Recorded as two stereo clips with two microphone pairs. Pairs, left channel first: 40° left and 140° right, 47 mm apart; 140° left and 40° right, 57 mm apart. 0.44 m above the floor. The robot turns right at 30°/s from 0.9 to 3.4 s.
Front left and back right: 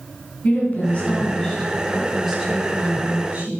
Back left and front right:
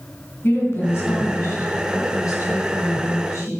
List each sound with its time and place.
0.4 s a woman speaking: 100° left, 4 m; by 3.5 s 175° left, 4 m